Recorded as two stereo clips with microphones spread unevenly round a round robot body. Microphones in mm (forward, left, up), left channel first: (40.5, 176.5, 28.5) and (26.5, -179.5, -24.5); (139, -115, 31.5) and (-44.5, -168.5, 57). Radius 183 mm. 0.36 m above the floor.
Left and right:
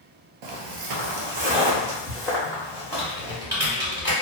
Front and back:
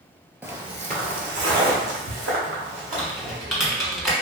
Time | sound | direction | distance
0.4 | footsteps | 90° right | 0.5 m
2.9 | typing on a keyboard | 50° right | 1.2 m